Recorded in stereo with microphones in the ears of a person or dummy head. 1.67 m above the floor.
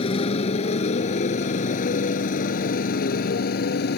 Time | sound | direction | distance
0.0 | a motorcycle | 40° left (ahead or behind) | ?